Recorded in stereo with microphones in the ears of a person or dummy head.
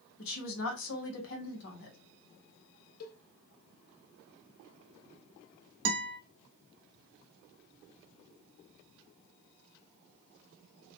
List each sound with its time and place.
0.2 s a woman speaking: 75° left (ahead or behind), 1.6 m
3.0 s a cowbell: 50° left (ahead or behind), 0.7 m
5.8 s a guitar: 65° right (ahead or behind), 1.1 m